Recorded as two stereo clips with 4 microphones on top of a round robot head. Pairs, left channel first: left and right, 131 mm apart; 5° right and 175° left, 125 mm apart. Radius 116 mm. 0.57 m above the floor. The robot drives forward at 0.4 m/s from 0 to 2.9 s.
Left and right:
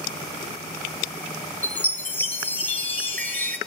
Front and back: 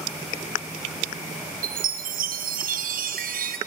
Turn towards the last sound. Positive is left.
turn(degrees=170)